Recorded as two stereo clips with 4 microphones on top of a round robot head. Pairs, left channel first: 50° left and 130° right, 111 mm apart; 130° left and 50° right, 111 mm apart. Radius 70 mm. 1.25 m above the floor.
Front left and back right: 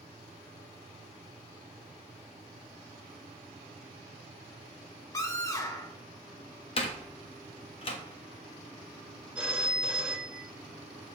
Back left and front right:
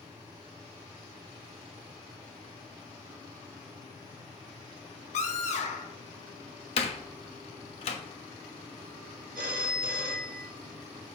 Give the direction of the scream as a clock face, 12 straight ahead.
8 o'clock.